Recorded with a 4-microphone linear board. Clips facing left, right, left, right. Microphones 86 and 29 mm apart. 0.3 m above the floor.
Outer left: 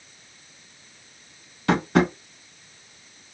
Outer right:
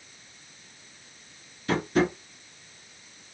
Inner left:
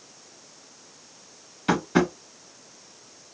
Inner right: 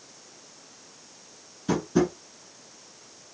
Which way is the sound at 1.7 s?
75° left (ahead or behind).